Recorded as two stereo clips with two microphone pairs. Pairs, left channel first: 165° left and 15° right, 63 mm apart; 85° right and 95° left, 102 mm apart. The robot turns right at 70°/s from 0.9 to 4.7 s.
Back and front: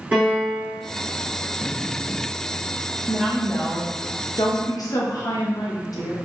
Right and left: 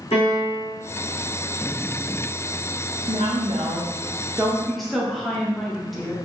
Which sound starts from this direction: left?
A woman speaking, at 3.1 s.